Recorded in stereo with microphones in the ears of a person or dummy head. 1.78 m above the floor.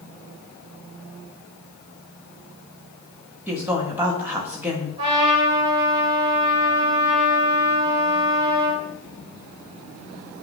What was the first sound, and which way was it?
A woman speaking, 15° right (ahead or behind).